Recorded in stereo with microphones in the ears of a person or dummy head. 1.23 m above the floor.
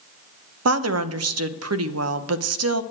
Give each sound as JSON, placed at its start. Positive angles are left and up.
{"t": 0.7, "sound": "a woman speaking", "side_deg": -75, "distance_m": 0.8}